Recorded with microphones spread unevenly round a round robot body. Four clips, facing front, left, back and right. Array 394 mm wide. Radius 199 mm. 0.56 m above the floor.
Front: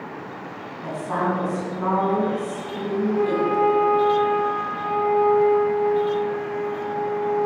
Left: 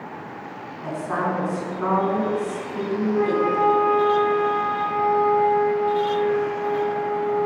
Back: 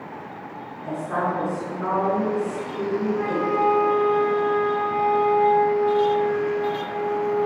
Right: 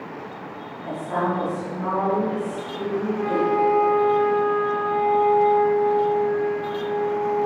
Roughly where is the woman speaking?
Ahead left.